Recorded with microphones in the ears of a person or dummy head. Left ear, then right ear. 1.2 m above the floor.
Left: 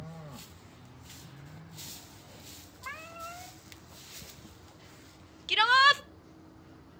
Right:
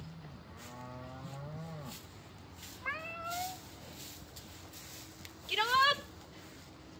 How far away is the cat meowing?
About 0.7 m.